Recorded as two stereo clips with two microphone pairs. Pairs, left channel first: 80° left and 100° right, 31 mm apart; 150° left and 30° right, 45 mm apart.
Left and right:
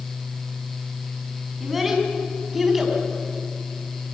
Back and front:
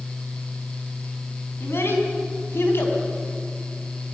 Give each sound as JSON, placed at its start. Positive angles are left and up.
{"t": 1.6, "sound": "a child speaking", "azimuth_deg": 175, "distance_m": 5.5}